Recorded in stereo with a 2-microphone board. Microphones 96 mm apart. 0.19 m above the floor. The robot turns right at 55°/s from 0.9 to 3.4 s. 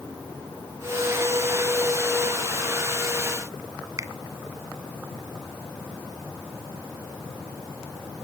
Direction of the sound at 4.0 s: 35° right (ahead or behind).